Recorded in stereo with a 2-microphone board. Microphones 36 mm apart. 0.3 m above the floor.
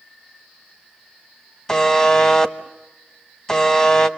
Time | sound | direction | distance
1.7 | a buzzer | 20° left (ahead or behind) | 1.2 m